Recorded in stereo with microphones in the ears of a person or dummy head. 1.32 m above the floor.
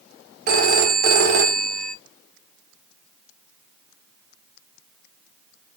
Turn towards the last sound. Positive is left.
turn(degrees=-55)  # may be behind; listen again after turning